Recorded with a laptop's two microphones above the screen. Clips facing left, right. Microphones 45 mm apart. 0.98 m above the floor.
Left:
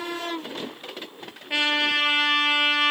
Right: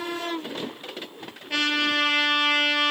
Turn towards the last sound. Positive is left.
turn(degrees=15)  # may be behind; listen again after turning